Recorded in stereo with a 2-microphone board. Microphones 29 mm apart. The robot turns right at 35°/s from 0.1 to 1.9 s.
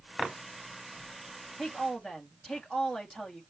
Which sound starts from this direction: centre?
A woman speaking, at 1.6 s.